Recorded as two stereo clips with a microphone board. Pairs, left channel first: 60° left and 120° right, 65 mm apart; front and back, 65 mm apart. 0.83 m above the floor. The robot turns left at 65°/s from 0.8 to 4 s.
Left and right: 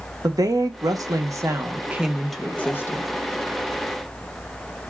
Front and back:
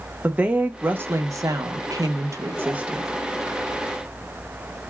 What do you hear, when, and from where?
0.2 s a woman speaking: 115° right, 0.8 m; by 3.1 s 100° left, 0.8 m